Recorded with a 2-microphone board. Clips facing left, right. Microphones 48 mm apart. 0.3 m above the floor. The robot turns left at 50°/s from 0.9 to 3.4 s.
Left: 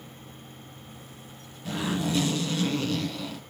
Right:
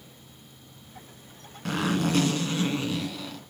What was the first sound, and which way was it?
A zipper, 100° right.